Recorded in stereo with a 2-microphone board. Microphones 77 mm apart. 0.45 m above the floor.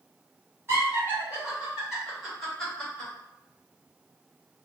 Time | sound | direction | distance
0.7 | laughter | 30° right (ahead or behind) | 1.9 m